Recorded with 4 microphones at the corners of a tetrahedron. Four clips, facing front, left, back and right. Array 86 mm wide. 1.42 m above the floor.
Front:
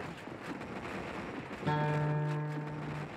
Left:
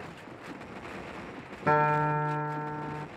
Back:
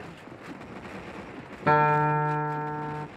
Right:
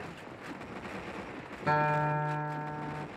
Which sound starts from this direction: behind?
A guitar, at 1.7 s.